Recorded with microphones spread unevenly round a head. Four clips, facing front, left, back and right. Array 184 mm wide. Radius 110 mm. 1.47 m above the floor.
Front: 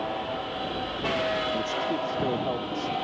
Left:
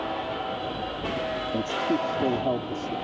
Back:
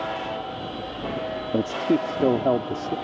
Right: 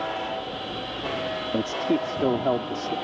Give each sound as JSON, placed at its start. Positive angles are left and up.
{"t": 1.5, "sound": "a man speaking", "azimuth_deg": -170}